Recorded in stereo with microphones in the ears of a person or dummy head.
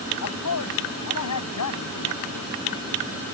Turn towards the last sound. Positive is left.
turn(degrees=80)